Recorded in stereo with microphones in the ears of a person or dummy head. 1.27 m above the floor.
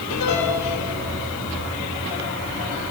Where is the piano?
80° left, 4 m.